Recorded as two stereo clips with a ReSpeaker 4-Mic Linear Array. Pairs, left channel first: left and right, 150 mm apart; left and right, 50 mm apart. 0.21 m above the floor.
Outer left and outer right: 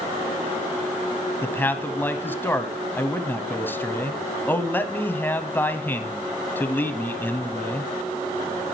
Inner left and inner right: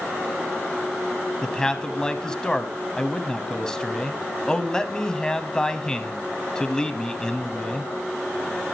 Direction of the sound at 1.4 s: 15° left (ahead or behind).